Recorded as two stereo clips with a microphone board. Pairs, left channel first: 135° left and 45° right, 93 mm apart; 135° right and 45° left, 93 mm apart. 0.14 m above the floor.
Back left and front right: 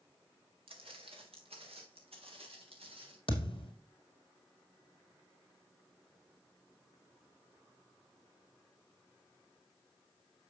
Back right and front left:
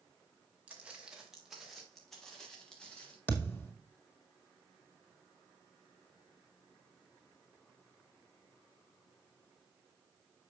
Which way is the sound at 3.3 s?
155° left.